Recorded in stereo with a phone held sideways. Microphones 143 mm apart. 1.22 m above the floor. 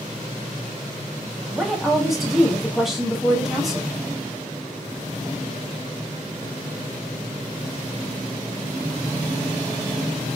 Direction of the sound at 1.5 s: Centre (ahead or behind).